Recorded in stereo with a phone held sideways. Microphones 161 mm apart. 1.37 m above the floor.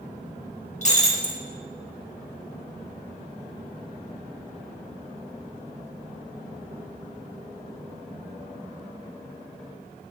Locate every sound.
0.8 s breaking glass: 45° left (ahead or behind), 1.3 m